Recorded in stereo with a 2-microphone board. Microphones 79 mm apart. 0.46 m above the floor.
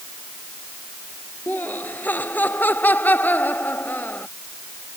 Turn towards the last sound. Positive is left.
turn(degrees=20)  # may be behind; listen again after turning